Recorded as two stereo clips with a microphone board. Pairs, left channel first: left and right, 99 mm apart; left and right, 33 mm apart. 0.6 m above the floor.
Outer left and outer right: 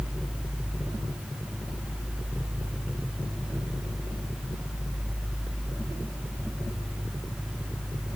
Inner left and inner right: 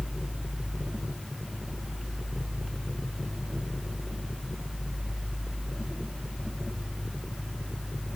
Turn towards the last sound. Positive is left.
No sound to turn to.